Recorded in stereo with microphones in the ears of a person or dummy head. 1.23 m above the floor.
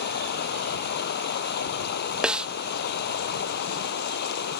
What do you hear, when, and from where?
0.0 s running water: 55° left (ahead or behind)
2.2 s a snare drum: 5° right (ahead or behind)